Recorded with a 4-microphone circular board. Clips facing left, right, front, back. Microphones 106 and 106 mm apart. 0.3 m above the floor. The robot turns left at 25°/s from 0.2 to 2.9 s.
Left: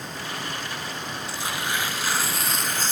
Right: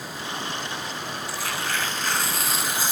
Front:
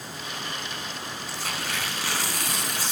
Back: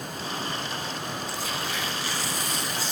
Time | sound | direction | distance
1.3 | tearing paper | 25° left | 0.7 m